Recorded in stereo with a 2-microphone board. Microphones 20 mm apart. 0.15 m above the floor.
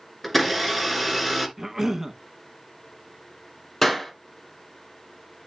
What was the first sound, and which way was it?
A blender, centre (ahead or behind).